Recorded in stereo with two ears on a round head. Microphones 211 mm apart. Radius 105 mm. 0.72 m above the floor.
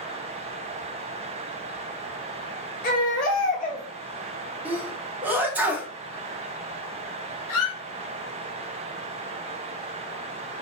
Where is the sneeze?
10° right (ahead or behind), 0.7 m.